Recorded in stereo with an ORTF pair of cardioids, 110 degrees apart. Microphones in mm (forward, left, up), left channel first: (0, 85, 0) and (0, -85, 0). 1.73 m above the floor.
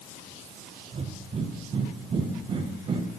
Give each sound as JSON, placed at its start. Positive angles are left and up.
{"t": 0.9, "sound": "breathing", "azimuth_deg": -35, "distance_m": 0.8}